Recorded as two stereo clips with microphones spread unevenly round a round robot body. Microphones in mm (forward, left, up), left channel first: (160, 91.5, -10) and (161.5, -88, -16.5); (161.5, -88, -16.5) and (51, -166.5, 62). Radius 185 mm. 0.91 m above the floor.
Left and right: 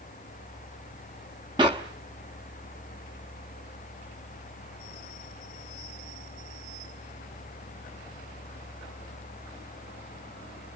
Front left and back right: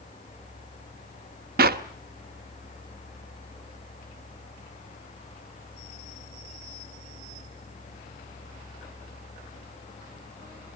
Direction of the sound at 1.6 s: 170° right.